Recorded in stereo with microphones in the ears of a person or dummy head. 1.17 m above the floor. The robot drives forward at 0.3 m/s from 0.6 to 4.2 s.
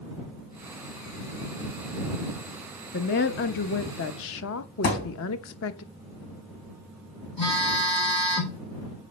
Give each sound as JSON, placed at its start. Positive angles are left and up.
{"t": 2.9, "sound": "a woman speaking", "side_deg": 50, "distance_m": 1.2}
{"t": 4.8, "sound": "a thud", "side_deg": 50, "distance_m": 3.0}
{"t": 7.4, "sound": "a phone buzzing", "side_deg": 25, "distance_m": 4.5}